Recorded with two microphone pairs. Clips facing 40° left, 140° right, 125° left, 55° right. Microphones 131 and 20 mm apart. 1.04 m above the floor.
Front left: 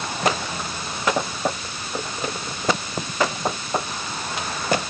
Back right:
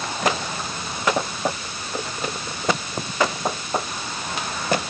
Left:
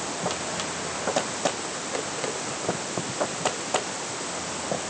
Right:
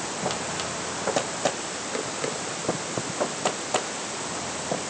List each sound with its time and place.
Only background noise.